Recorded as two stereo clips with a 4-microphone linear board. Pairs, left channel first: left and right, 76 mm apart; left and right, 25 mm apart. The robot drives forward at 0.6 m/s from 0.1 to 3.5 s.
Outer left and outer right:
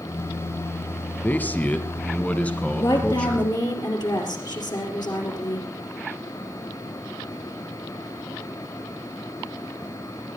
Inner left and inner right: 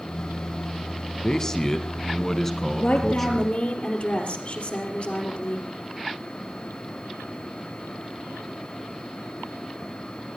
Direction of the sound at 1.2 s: 20° left (ahead or behind).